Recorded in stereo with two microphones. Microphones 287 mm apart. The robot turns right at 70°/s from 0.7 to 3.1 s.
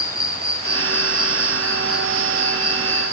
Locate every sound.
0.0 s an insect: 95° left, 1.8 m; by 3.1 s 100° right, 1.8 m